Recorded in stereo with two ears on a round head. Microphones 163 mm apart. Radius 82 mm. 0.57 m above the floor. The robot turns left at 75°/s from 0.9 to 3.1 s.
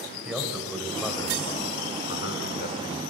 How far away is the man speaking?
About 3 m.